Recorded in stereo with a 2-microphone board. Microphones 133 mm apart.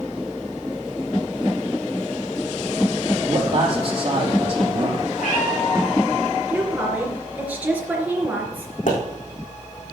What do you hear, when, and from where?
3.3 s a man speaking: 45° right (ahead or behind), 4.5 m
5.2 s a cat meowing: 75° left (ahead or behind), 6 m
6.5 s a woman speaking: 10° right (ahead or behind), 3 m
8.9 s a pop: 80° left, 5 m